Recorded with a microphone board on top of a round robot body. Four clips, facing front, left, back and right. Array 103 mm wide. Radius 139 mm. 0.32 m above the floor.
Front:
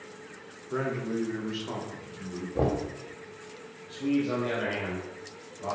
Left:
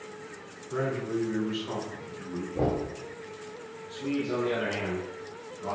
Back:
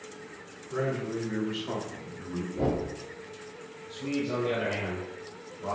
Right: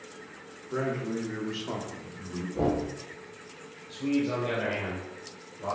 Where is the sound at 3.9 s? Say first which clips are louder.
Right 2 dB, front 4 dB; 45° right, 2.5 m.